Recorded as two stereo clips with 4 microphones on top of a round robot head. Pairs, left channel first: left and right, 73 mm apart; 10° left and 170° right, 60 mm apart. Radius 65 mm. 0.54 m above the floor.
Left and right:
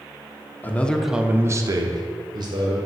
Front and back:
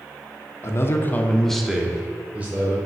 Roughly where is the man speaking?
Ahead left.